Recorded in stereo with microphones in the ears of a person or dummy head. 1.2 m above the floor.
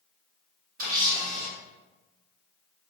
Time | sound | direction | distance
0.8 | a camera shutter | 45° right (ahead or behind) | 0.8 m